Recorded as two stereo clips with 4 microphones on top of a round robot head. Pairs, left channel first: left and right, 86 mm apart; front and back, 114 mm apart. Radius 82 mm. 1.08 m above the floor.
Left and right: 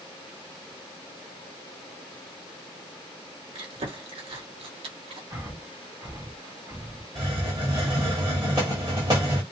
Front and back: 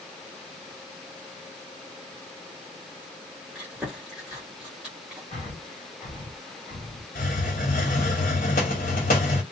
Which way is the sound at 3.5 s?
95° right.